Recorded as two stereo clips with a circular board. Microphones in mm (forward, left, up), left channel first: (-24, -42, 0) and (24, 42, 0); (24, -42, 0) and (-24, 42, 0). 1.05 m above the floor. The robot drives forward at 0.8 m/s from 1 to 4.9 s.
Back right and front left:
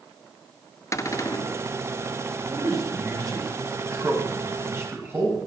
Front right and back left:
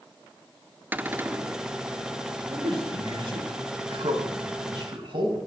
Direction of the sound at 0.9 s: 175° right.